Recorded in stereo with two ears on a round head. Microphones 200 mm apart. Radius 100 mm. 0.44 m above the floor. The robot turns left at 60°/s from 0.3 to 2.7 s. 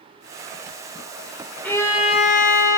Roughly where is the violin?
Behind.